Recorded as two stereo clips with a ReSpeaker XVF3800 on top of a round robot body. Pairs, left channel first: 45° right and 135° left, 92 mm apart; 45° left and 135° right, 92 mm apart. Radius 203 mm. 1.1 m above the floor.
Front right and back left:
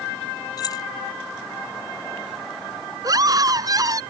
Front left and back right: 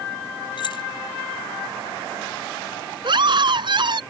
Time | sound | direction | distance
0.6 | keys jangling | 5° left | ?
3.0 | a scream | 175° right | ?